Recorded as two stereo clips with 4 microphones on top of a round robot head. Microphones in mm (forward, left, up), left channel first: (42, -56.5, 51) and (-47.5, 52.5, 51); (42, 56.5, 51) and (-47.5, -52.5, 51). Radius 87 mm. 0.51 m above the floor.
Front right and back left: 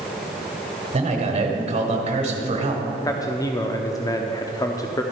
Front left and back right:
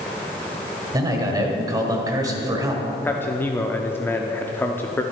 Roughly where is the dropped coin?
I don't hear a dropped coin.